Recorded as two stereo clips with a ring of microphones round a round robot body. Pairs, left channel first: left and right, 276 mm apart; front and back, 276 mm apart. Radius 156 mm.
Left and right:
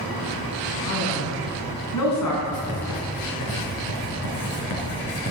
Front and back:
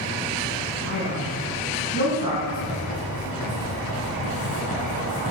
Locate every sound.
0.8 s a man speaking: 120° left, 5 m; by 2.4 s 105° left, 6 m
2.5 s writing: 65° left, 4 m